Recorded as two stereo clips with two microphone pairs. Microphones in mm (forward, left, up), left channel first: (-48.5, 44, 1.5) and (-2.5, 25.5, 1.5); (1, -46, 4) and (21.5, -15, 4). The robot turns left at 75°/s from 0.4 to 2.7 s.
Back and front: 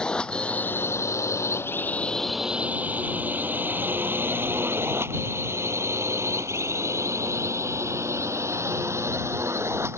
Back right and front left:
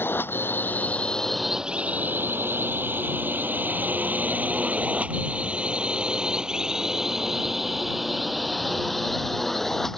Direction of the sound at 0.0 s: 130° right.